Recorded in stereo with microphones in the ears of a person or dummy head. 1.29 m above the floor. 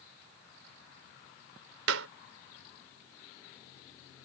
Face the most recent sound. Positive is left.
turn(degrees=-85)